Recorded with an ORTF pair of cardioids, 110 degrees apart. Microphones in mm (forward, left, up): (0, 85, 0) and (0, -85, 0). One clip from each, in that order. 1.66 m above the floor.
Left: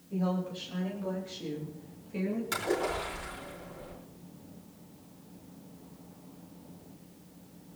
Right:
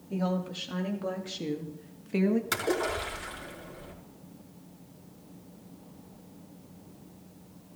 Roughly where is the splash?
Ahead right.